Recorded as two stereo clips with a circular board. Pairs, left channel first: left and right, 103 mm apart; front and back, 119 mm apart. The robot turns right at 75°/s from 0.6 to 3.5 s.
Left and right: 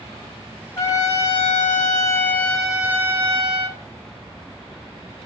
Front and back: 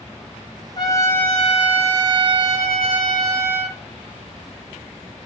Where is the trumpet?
35° left, 1.0 m; by 3.8 s 120° right, 1.0 m.